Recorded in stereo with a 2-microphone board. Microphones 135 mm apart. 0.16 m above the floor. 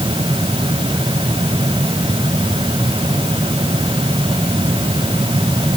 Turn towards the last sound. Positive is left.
No sound to turn to.